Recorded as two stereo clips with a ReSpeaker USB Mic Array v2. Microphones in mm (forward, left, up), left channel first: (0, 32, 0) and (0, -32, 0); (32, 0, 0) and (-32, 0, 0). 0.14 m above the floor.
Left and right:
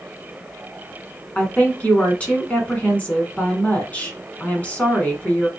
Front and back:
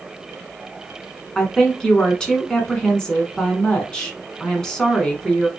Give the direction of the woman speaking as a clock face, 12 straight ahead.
10 o'clock.